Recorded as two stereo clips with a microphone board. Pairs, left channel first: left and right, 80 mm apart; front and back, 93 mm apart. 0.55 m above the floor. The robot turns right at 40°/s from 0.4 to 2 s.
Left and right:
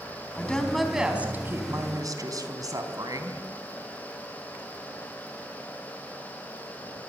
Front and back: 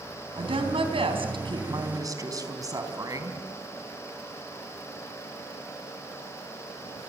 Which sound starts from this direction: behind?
A woman speaking, at 0.4 s.